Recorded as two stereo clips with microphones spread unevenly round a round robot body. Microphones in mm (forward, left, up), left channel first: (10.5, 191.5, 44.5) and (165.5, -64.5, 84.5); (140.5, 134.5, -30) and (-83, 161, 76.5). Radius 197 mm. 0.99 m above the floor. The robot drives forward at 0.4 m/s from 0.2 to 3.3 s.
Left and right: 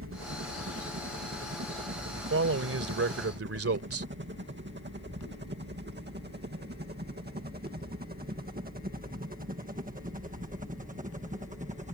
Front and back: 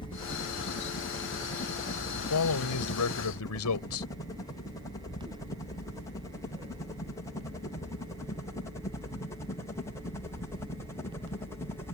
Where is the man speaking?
15° right.